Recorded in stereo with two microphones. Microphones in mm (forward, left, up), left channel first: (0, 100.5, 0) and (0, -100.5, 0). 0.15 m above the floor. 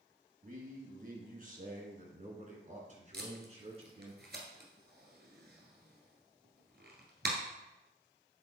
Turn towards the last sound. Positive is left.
turn(degrees=-60)  # may be behind; listen again after turning